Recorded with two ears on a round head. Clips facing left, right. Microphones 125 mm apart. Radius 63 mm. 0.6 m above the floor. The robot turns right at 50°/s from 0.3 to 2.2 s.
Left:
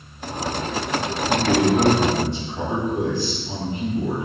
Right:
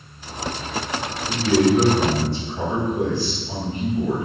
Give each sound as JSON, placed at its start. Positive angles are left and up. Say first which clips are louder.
{"t": 1.3, "sound": "a man speaking", "louder": "right 1 dB", "side_deg": -25, "distance_m": 1.3}